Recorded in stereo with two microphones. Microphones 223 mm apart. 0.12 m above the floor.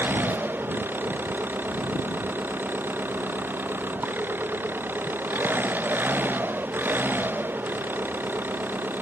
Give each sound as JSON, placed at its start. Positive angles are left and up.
{"t": 0.0, "sound": "an engine running", "side_deg": -10}